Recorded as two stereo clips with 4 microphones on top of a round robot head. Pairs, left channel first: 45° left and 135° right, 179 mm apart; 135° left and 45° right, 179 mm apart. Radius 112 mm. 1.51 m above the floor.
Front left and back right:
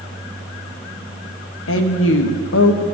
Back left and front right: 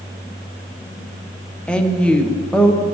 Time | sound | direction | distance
1.7 | a woman speaking | 50° left | 1.1 m